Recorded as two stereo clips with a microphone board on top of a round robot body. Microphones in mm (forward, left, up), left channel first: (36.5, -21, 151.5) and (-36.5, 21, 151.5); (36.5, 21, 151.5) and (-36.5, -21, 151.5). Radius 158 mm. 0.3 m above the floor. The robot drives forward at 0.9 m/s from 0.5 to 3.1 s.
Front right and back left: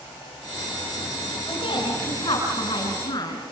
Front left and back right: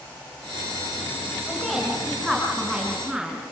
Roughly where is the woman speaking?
Ahead right.